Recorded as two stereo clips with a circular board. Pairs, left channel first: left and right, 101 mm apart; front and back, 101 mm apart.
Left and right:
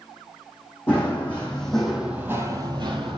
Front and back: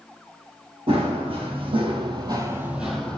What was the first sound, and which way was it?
Running footsteps, 160° left.